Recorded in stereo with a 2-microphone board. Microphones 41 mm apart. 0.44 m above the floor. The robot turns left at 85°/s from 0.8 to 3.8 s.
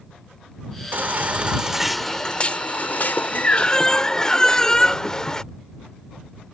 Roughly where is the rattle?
I don't hear a rattle.